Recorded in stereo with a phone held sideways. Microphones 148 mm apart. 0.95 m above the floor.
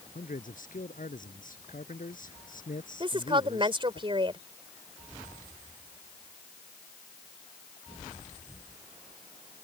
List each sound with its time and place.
0.1 s a man speaking: 65° left (ahead or behind)
3.0 s a woman speaking: 35° right (ahead or behind)